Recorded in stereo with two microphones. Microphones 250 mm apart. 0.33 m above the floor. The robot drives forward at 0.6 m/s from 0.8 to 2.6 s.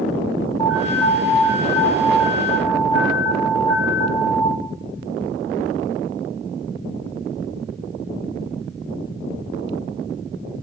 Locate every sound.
0.6 s an alarm: 20° left (ahead or behind), 8 m